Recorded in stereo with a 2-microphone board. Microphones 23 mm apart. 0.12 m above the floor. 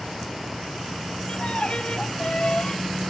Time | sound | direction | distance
1.3 | a violin | 55° left (ahead or behind) | ?